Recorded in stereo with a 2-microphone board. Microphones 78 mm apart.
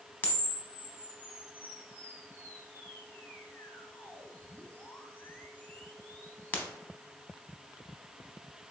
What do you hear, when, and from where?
0.2 s a camera shutter: 25° left (ahead or behind), 0.8 m